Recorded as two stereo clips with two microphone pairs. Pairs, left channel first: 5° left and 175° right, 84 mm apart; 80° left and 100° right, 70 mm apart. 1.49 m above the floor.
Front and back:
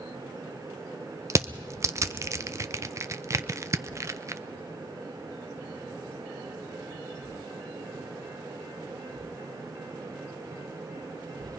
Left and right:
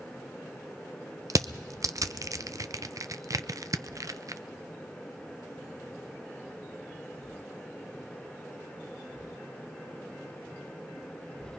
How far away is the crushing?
About 0.5 m.